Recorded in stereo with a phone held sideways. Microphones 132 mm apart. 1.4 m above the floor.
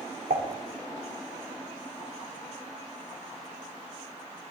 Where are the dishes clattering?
80° right, 2.5 m.